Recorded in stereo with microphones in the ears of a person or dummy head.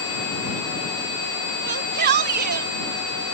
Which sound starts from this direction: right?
A shout, at 1.6 s.